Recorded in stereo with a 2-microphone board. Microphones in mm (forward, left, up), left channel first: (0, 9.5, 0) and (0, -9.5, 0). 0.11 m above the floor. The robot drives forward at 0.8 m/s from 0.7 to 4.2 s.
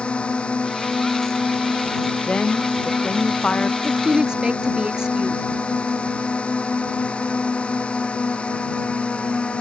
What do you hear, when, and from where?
0.0 s a drone: 65° left (ahead or behind); by 9.6 s 75° left (ahead or behind)
2.3 s a woman speaking: 60° left (ahead or behind); by 3.7 s 65° left (ahead or behind)
3.8 s a woman speaking: 45° right (ahead or behind)